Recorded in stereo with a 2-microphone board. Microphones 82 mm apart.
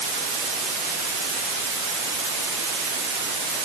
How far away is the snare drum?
No snare drum in this recording.